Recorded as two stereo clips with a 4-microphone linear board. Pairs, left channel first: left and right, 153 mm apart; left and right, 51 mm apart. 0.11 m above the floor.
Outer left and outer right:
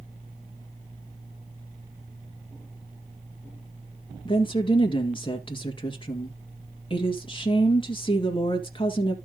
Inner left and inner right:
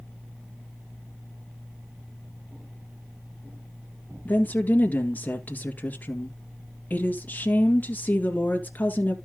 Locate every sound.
4.2 s a woman speaking: 35° left (ahead or behind), 2.0 m